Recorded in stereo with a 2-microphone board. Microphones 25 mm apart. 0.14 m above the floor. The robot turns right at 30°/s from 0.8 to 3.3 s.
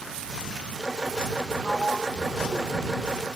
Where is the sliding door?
30° left; by 3.3 s 75° left.